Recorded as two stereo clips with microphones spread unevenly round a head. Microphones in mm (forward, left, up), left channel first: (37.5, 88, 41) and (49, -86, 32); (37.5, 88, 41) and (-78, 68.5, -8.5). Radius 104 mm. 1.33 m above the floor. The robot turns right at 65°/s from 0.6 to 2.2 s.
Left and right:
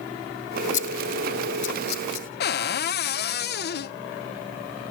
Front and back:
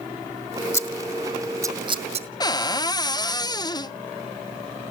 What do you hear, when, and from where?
0.7 s scissors: 55° left, 1.9 m; by 2.3 s 150° left, 1.9 m
2.4 s a cupboard door: 65° left, 0.7 m